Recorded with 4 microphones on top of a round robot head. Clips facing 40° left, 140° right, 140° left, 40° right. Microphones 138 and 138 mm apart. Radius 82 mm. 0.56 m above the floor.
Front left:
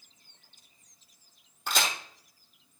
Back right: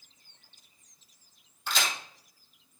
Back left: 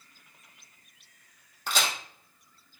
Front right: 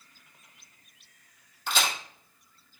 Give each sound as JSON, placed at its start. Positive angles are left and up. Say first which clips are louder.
{"t": 1.7, "sound": "a crack", "louder": "front left 2 dB, front right 1 dB", "azimuth_deg": 90, "distance_m": 3.0}